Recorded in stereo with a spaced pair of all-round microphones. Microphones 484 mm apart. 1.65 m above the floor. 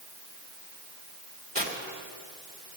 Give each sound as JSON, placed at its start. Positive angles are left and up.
{"t": 1.6, "sound": "tearing paper", "side_deg": -20, "distance_m": 2.5}